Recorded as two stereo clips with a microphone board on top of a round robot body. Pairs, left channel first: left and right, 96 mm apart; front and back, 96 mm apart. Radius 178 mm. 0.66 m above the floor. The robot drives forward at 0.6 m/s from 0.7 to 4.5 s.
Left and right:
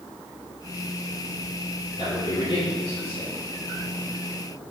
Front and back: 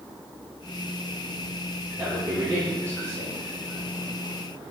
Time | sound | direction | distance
2.0 | a man speaking | 115° left | 3 m